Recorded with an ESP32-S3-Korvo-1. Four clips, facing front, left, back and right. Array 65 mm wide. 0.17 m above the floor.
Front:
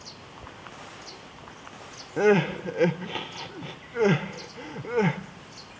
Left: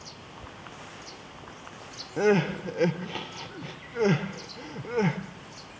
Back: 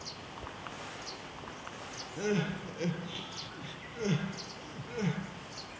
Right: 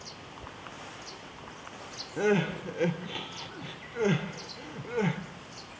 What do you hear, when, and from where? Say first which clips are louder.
2.2 s crying: left 3 dB, front 12 dB; 15° left, 1.0 m